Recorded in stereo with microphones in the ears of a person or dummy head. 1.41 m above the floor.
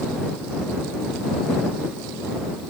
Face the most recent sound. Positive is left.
No sound to turn to.